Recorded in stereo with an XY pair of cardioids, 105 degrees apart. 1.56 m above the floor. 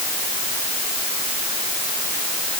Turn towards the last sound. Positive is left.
No sound to turn to.